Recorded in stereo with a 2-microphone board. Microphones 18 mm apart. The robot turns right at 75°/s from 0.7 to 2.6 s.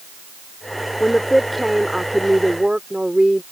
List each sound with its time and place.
1.0 s a woman speaking: 140° left; by 3.4 s 100° right